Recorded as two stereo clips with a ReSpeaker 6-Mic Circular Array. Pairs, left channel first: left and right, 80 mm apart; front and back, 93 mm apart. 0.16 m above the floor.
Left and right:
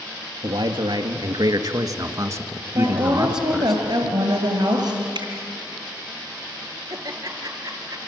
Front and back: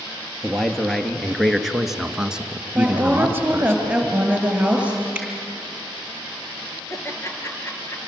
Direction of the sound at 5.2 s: 105° right.